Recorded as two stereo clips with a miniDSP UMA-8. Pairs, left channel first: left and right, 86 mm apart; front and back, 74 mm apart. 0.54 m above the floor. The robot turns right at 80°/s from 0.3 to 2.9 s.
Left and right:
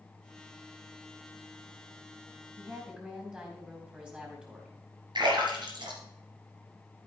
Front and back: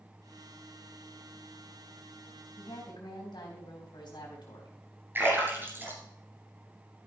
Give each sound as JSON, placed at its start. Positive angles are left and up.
{"t": 2.6, "sound": "a woman speaking", "azimuth_deg": -40, "distance_m": 3.5}
{"t": 5.2, "sound": "a splash", "azimuth_deg": -120, "distance_m": 2.5}